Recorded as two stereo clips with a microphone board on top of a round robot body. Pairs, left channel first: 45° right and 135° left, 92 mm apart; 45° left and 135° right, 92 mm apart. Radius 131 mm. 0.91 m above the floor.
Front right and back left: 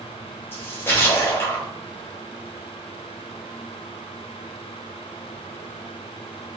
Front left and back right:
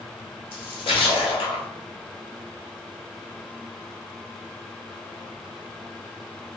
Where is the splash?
20° left, 0.6 m.